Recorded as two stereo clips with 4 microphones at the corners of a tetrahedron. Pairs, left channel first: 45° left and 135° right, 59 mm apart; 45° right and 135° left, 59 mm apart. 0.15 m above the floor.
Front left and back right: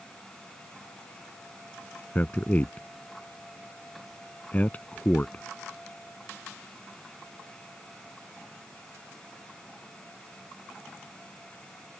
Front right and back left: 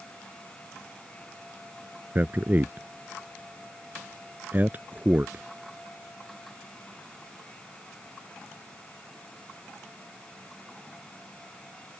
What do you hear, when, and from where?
2.1 s a man speaking: 95° left